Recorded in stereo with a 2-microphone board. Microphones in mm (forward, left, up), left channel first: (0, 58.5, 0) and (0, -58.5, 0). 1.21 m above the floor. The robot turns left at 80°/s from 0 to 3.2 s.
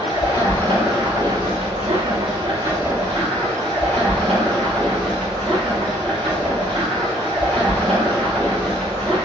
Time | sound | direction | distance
0.0 | running water | 65° left | 1.2 m